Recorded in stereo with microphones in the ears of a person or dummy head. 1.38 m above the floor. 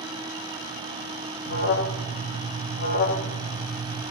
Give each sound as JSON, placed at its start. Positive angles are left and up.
{"t": 1.4, "sound": "an alarm", "side_deg": 65, "distance_m": 2.0}